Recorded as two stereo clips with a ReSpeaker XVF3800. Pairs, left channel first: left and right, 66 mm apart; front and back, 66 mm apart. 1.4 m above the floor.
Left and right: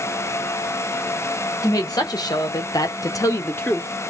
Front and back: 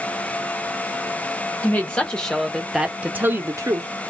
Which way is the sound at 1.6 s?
65° left.